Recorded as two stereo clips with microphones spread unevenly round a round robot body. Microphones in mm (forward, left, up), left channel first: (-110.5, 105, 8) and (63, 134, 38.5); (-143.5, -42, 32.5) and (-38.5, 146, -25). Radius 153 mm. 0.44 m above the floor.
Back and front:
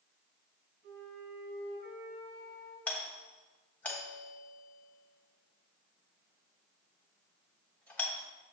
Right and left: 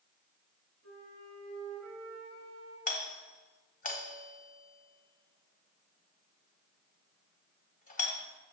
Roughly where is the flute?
Ahead.